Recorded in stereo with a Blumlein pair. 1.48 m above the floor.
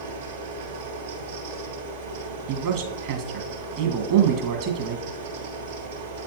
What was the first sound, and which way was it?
A fan, 70° right.